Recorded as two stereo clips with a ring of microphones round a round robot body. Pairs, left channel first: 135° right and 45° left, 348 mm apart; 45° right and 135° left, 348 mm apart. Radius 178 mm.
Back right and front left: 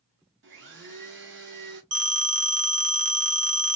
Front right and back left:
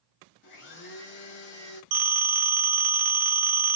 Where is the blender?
Straight ahead, 1.5 m.